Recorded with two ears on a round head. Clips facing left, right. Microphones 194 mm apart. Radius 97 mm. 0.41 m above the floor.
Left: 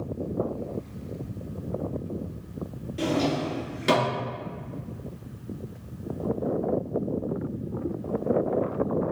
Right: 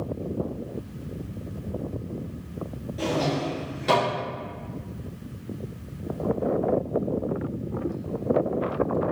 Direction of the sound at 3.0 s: 35° left (ahead or behind).